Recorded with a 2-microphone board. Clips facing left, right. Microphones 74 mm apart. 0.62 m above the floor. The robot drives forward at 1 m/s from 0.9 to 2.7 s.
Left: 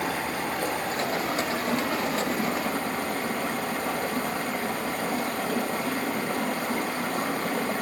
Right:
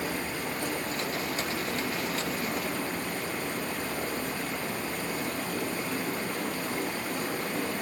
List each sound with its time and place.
0.0 s running water: 65° left (ahead or behind), 2.5 m; by 7.8 s 70° left (ahead or behind), 2.5 m